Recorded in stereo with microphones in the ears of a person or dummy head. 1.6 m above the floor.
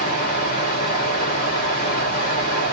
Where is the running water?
45° left (ahead or behind), 1.8 m.